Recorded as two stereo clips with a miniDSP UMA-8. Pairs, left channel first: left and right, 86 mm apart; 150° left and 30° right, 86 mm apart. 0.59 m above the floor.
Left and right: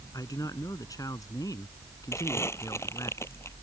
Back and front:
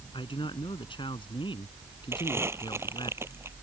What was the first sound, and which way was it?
A man speaking, 135° left.